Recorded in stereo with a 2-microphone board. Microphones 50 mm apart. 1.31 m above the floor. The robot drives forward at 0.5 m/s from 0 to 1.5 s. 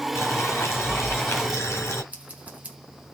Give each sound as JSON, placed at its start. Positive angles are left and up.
{"t": 0.1, "sound": "boiling", "side_deg": 65, "distance_m": 2.5}
{"t": 2.1, "sound": "scissors", "side_deg": -25, "distance_m": 1.3}